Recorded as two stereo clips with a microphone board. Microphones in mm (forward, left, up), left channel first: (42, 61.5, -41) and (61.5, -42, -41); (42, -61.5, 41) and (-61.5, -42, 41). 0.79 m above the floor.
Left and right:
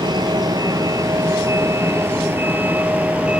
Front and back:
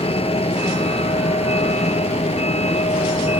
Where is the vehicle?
35° right; by 3.4 s straight ahead.